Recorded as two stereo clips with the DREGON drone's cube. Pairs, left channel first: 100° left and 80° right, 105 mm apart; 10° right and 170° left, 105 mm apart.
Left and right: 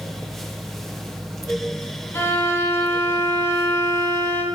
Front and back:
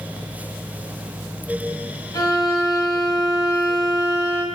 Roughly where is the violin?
Ahead left.